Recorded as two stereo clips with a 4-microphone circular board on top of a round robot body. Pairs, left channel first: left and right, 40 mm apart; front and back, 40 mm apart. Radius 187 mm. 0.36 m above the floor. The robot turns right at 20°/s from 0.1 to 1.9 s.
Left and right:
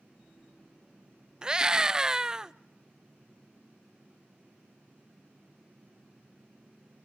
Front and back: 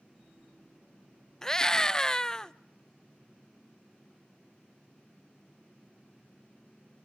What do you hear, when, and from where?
1.4 s a scream: 50° right, 0.9 m; by 2.5 s 40° right, 0.9 m